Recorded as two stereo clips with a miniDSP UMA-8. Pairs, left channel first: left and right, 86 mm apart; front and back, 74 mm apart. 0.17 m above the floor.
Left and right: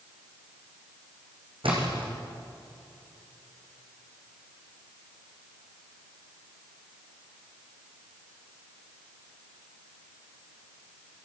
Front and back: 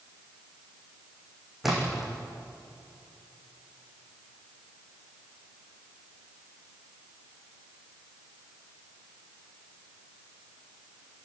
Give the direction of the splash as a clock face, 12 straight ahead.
3 o'clock.